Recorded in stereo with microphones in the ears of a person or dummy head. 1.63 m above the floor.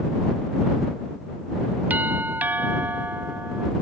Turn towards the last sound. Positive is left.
turn(degrees=-10)  # may be behind; listen again after turning